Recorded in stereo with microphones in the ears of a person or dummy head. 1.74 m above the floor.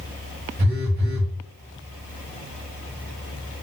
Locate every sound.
0.6 s a phone buzzing: 40° right (ahead or behind), 0.8 m